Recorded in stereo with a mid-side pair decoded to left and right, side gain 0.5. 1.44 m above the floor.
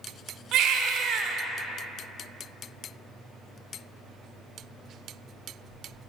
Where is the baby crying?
65° right, 0.8 m.